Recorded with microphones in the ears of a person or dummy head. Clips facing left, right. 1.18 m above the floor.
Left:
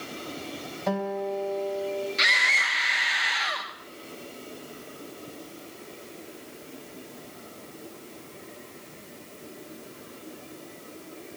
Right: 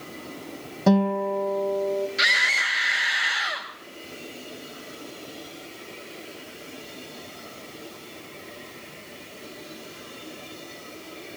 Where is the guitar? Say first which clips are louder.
Right 8 dB; 65° right (ahead or behind), 1.0 m.